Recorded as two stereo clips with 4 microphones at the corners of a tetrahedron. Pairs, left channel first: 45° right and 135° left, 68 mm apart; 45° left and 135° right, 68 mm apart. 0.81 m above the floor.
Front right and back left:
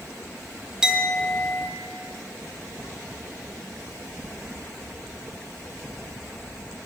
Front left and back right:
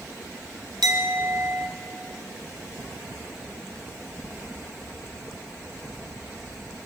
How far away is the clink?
About 1.0 m.